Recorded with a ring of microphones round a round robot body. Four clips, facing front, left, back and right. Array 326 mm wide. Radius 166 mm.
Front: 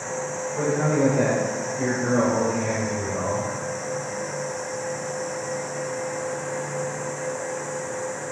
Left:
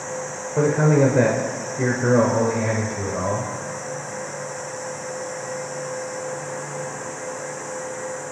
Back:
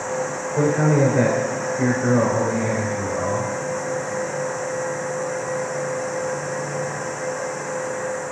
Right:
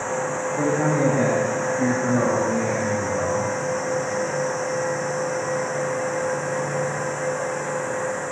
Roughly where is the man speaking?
Behind left.